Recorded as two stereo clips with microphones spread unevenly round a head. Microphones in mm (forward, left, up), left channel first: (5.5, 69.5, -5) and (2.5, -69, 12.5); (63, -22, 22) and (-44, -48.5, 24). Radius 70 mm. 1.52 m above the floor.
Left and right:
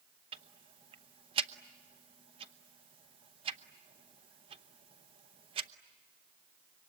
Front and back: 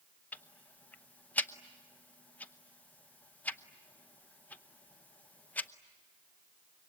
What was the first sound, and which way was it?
Ticking, 60° right.